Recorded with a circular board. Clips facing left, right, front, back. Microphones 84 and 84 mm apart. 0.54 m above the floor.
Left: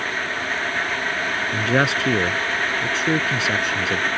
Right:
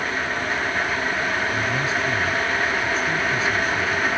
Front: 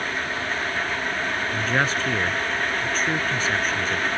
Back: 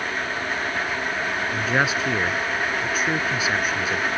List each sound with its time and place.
1.5 s a man speaking: 100° left